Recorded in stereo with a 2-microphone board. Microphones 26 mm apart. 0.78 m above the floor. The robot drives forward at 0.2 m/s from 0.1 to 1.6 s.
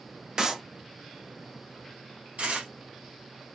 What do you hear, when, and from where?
0.4 s a clap: 35° right (ahead or behind), 0.9 m; by 0.6 s 30° right (ahead or behind), 0.9 m
2.4 s tearing paper: 65° right (ahead or behind), 2.0 m